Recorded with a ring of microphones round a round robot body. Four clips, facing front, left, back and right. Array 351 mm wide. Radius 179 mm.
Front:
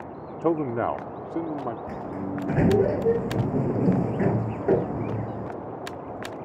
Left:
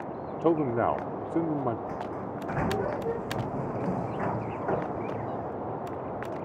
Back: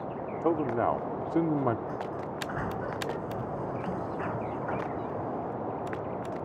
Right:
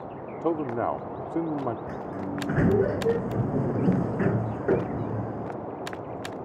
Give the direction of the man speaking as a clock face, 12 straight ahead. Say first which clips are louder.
Left 2 dB, front 3 dB; 11 o'clock.